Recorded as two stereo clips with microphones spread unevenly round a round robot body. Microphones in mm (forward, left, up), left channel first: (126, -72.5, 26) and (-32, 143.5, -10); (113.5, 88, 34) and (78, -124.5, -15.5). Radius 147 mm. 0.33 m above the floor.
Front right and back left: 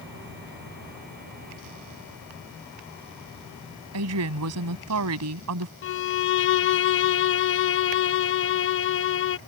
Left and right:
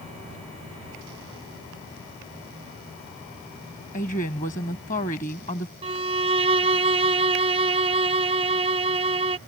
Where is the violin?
80° right.